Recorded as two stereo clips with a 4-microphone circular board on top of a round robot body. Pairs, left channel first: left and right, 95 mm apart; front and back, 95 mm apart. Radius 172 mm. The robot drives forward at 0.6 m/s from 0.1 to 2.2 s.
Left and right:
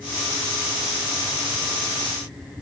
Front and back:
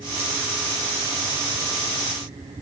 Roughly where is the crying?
No crying in this recording.